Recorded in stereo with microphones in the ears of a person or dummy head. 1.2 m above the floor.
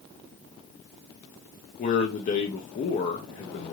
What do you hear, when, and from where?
1.8 s a man speaking: 40° left (ahead or behind), 0.6 m